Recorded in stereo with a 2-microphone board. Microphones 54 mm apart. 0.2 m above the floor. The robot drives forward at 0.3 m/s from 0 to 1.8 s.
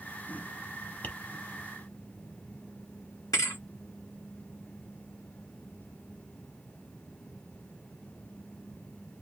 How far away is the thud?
About 0.9 m.